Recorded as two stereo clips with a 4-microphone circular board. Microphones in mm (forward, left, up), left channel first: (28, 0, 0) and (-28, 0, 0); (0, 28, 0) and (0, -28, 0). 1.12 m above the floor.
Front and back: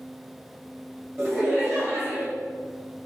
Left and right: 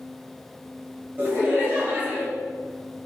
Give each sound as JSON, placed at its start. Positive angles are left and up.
{"t": 1.2, "sound": "laughter", "azimuth_deg": -140, "distance_m": 1.9}